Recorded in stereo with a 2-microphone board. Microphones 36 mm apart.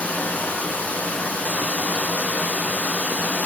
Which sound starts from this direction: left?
Running water, at 0.0 s.